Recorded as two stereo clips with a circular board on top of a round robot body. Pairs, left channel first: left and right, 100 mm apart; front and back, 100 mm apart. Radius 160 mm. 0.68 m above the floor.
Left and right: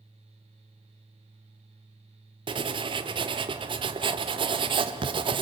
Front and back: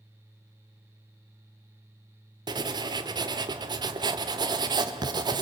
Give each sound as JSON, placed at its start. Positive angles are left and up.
{"t": 2.5, "sound": "writing", "azimuth_deg": -130, "distance_m": 0.8}